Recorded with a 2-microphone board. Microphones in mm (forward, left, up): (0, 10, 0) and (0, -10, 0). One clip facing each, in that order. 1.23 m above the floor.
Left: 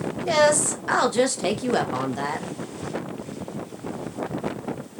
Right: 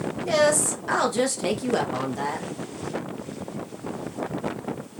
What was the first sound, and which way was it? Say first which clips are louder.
A woman speaking: left 2 dB; 20° left (ahead or behind).